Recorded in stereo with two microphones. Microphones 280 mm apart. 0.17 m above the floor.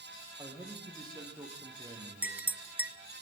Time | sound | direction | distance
0.4 | a man speaking | 15° right (ahead or behind) | 6.5 m
2.2 | a clink | 5° right (ahead or behind) | 0.7 m